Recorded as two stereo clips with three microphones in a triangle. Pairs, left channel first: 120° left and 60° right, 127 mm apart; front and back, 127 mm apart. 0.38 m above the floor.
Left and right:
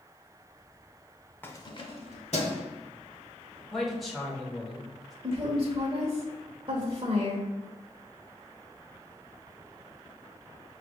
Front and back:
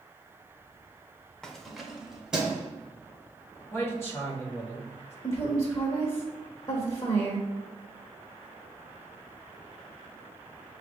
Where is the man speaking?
30° left, 1.3 m.